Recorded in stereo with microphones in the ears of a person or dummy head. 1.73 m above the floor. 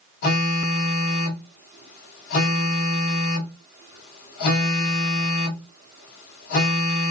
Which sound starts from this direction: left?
A phone buzzing, at 0.2 s.